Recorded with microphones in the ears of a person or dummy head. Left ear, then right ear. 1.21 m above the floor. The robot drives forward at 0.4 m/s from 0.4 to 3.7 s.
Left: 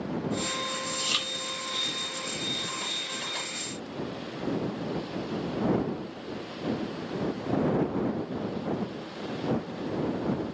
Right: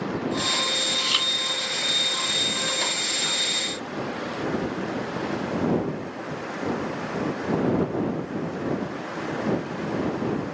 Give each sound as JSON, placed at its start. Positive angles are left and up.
{"t": 0.9, "sound": "chewing", "side_deg": -5, "distance_m": 2.5}